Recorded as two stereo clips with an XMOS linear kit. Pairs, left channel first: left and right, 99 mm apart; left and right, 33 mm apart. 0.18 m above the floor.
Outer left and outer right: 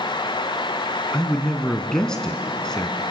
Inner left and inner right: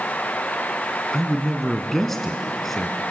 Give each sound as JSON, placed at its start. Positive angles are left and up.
{"t": 1.1, "sound": "a man speaking", "side_deg": 10, "distance_m": 1.4}